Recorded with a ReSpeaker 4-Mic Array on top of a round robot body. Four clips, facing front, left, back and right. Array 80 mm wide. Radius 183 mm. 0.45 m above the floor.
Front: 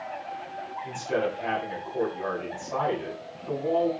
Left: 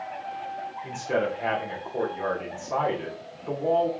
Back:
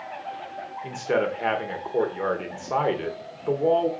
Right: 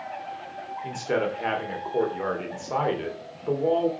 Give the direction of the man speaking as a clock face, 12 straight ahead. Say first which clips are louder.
Right 1 dB, back 4 dB; 5 o'clock.